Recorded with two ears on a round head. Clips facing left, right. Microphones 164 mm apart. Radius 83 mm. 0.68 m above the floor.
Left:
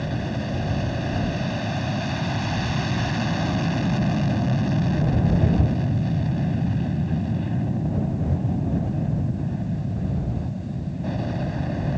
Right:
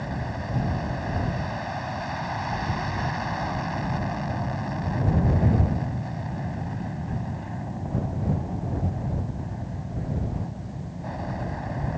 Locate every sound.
0.0 s an aircraft: 35° left (ahead or behind)